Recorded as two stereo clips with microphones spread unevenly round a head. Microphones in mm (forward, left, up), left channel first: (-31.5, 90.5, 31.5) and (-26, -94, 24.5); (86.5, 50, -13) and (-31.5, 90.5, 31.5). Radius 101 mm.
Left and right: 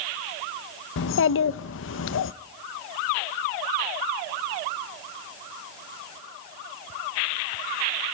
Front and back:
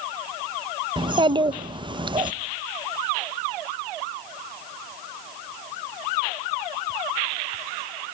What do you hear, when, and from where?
1.0 s a child speaking: 105° left, 0.9 m